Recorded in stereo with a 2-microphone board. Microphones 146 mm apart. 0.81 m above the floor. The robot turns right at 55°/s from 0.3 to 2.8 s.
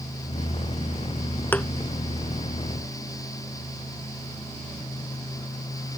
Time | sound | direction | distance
1.5 | a thud | 15° left (ahead or behind) | ?